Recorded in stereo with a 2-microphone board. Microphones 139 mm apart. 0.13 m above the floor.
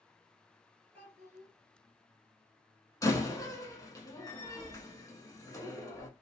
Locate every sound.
0.9 s a child speaking: 15° right (ahead or behind), 1.7 m
3.0 s a door slam: 25° left (ahead or behind), 0.7 m